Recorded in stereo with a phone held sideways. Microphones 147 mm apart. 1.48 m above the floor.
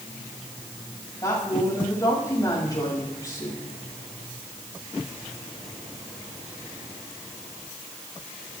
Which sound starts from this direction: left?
A woman speaking, at 1.2 s.